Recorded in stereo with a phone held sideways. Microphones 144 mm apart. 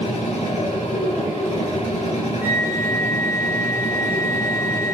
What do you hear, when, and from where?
0.0 s a machine running: 55° left (ahead or behind), 3.5 m
2.4 s a flute: 85° left, 4 m